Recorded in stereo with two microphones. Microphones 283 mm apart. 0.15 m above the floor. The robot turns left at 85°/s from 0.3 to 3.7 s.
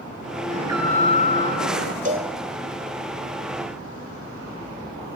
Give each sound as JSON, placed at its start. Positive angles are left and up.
{"t": 0.5, "sound": "an alarm", "azimuth_deg": -145, "distance_m": 4.0}
{"t": 2.0, "sound": "a cowbell", "side_deg": -30, "distance_m": 3.5}